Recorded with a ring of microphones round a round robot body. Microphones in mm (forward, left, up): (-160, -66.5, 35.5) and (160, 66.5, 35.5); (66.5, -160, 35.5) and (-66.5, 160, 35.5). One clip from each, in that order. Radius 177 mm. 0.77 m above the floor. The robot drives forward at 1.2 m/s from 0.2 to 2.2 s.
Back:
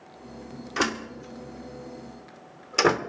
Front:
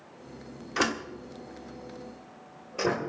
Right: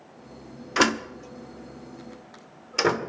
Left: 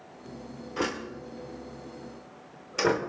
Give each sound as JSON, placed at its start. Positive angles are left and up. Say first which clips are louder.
{"t": 0.8, "sound": "a door slam", "louder": "back 1 dB, right 9 dB", "azimuth_deg": -65, "distance_m": 1.2}